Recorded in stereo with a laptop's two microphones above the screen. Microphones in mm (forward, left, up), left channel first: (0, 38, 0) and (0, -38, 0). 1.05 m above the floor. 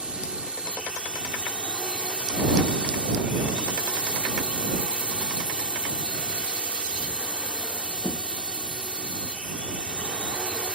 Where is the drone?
10° right (ahead or behind).